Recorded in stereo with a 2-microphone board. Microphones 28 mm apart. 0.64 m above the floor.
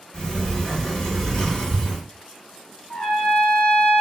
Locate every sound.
0.1 s a sliding door: 35° left (ahead or behind), 1.0 m
2.9 s a trumpet: 60° left (ahead or behind), 0.9 m